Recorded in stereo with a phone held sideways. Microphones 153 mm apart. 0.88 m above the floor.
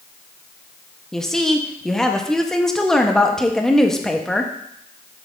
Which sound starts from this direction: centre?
A woman speaking, at 1.1 s.